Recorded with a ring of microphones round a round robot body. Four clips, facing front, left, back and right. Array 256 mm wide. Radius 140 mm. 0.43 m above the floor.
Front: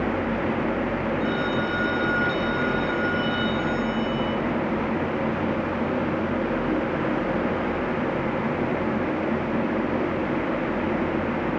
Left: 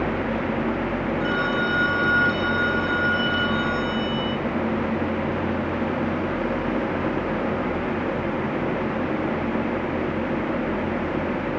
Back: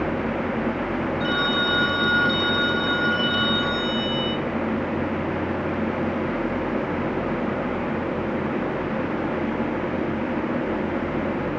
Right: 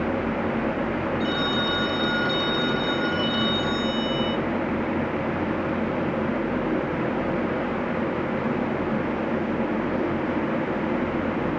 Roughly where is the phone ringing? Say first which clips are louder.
Left 2 dB, back 1 dB; behind.